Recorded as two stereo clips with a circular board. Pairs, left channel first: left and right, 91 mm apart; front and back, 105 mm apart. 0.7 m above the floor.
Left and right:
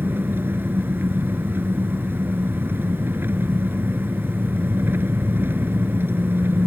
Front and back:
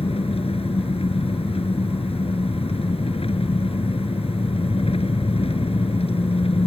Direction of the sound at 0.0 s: 25° right.